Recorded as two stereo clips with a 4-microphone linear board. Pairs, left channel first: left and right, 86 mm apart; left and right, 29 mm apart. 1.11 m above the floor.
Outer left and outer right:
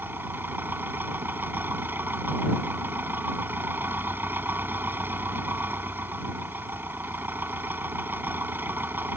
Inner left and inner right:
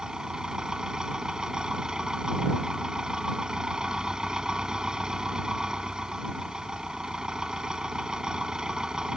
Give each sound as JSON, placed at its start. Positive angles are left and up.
{"t": 0.0, "sound": "an engine running", "side_deg": -25}